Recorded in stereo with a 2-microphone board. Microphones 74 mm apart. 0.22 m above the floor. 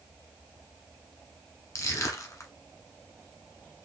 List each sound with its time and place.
1.8 s crushing: 45° left (ahead or behind), 1.2 m